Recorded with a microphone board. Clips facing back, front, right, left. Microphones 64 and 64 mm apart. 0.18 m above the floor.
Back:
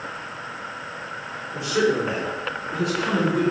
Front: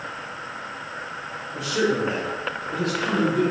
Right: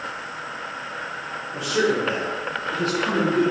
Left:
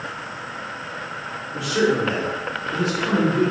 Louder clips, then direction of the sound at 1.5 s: Back 2 dB, left 2 dB; 165° right.